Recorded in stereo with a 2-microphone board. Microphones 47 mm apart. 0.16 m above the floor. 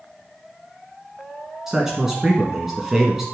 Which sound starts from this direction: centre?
A man speaking, at 1.7 s.